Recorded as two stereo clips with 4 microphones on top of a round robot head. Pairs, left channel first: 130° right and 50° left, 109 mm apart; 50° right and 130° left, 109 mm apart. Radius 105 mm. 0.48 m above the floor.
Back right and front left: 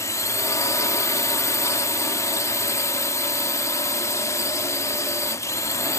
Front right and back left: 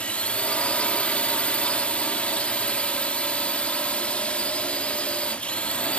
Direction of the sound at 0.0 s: 115° right.